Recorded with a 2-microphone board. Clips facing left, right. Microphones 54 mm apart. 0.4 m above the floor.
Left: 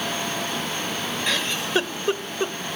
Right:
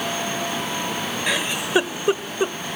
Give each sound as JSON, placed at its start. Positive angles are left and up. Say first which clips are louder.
{"t": 1.3, "sound": "a giggle", "louder": "right 2 dB", "side_deg": -15, "distance_m": 0.8}